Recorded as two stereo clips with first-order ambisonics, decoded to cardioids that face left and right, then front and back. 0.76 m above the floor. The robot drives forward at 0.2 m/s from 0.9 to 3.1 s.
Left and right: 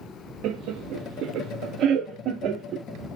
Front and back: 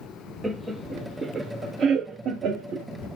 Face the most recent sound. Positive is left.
turn(degrees=-145)